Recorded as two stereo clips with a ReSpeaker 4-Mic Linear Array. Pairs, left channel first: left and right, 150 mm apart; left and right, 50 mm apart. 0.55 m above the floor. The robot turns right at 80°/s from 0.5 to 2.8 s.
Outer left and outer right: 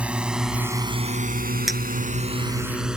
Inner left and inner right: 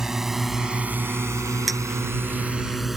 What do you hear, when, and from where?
0.0 s a drone: 5° right (ahead or behind)
1.7 s a clink: 5° right (ahead or behind); by 1.8 s 10° left (ahead or behind)